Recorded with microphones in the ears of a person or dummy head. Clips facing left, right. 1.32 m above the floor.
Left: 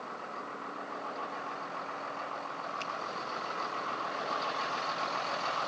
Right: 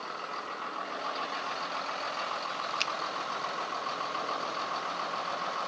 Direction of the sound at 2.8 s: 80° right.